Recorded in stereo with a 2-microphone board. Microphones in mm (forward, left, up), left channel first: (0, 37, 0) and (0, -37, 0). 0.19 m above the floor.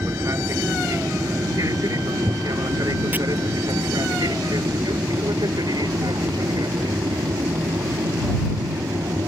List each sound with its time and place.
0.0 s an aircraft: 40° right (ahead or behind); by 9.3 s 65° right (ahead or behind)
3.1 s chopping: 25° right (ahead or behind)